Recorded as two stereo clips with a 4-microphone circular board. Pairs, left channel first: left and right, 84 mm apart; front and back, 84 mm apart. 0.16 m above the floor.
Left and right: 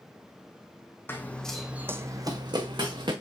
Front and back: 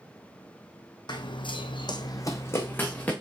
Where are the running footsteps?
30° left, 0.7 m; by 3.1 s 75° right, 1.0 m.